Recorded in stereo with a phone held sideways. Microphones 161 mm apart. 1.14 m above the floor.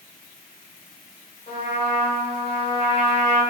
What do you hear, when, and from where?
1.5 s a trumpet: 60° left (ahead or behind), 1.7 m